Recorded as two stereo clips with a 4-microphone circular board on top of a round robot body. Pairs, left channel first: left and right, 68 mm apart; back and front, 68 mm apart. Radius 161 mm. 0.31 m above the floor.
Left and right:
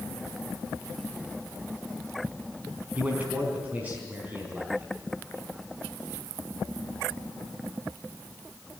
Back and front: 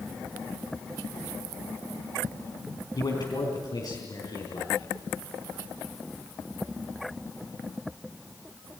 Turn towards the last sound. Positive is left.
turn(degrees=-160)